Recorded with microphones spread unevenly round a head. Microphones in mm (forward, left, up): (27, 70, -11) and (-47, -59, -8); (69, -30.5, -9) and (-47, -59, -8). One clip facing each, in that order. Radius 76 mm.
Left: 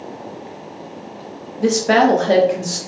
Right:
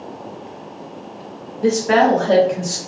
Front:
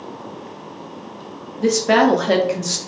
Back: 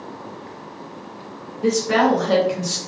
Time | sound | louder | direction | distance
1.6 | a woman speaking | even, front 3 dB | 35° left | 0.7 m